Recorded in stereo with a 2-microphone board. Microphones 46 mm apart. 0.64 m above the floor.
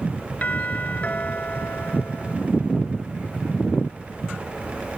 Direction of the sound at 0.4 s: 30° left (ahead or behind).